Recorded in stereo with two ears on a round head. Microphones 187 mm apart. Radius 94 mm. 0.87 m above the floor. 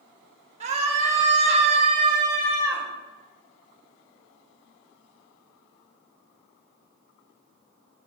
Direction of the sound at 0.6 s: 30° right (ahead or behind).